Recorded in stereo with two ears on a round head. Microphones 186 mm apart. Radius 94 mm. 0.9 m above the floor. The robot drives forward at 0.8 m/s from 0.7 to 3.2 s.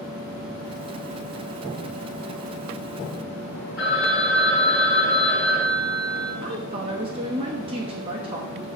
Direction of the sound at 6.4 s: 25° right (ahead or behind).